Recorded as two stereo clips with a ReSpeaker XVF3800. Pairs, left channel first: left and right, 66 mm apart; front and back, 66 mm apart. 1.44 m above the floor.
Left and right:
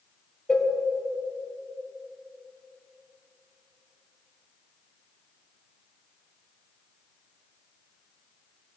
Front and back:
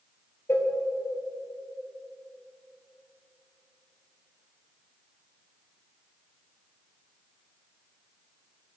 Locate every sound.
0.5 s a cowbell: 20° left, 0.7 m